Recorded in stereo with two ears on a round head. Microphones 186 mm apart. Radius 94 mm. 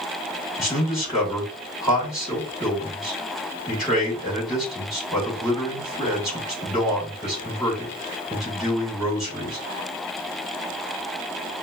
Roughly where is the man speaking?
Centre.